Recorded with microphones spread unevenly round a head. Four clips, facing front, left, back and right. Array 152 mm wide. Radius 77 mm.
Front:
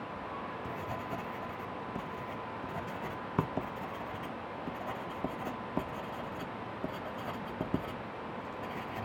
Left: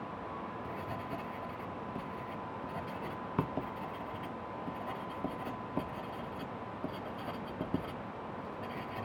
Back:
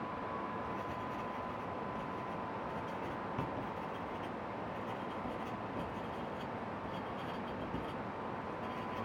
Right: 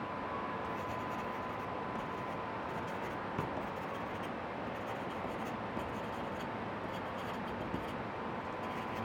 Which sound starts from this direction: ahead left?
Writing, at 0.2 s.